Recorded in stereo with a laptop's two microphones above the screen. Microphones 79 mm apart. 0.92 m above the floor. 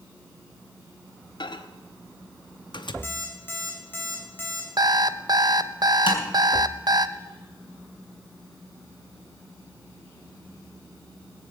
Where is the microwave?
70° left (ahead or behind), 0.8 m.